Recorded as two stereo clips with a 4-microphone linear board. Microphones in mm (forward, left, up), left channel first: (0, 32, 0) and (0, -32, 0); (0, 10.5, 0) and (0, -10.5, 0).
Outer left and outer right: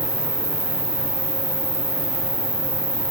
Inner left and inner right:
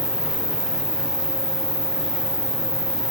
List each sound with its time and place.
0.0 s an insect: 30° right (ahead or behind), 1.0 m